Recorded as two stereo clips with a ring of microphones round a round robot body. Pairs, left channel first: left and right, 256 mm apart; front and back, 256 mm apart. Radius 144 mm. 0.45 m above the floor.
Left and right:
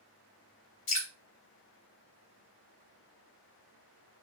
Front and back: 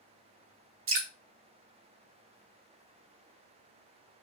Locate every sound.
0.9 s dripping: 140° left, 0.9 m